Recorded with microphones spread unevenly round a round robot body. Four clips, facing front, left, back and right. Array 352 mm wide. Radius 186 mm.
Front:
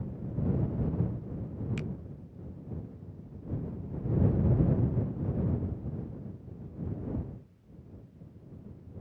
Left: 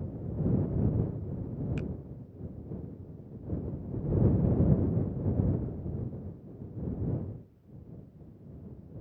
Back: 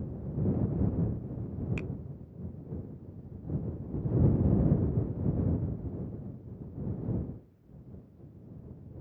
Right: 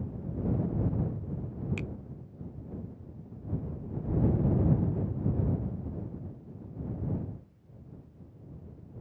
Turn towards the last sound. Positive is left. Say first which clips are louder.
# left 2 dB, front 1 dB
turn(degrees=-105)